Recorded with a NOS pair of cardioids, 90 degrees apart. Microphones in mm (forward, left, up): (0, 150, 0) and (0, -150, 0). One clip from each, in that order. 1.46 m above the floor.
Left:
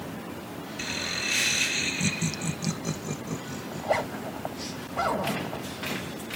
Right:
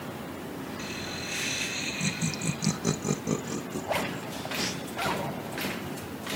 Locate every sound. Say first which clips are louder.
0.8 s laughter: left 8 dB; 60° left, 1.7 m; by 4.7 s 70° right, 2.5 m
3.7 s a zipper: left 4 dB; 40° left, 2.5 m